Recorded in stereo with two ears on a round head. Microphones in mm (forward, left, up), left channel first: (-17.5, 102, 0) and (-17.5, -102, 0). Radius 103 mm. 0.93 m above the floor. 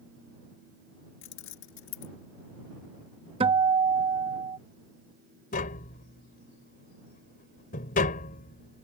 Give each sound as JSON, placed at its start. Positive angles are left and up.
{"t": 1.2, "sound": "keys jangling", "side_deg": 55}
{"t": 3.4, "sound": "a guitar", "side_deg": -25}
{"t": 5.5, "sound": "tapping", "side_deg": 35}